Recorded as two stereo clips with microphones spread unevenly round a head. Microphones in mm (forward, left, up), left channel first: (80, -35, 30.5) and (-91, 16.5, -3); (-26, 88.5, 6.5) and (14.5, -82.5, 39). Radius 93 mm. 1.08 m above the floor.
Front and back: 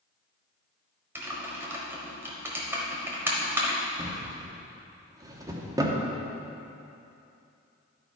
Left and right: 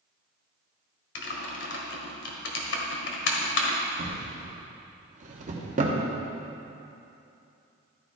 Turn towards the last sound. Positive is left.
turn(degrees=-120)